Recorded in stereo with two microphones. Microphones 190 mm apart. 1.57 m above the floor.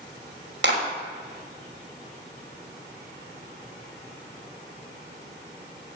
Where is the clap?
85° right, 6 m.